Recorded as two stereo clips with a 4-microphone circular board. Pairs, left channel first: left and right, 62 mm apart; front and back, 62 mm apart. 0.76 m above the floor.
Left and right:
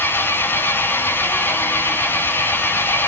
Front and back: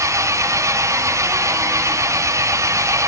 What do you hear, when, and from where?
0.0 s an engine running: 145° left, 2.5 m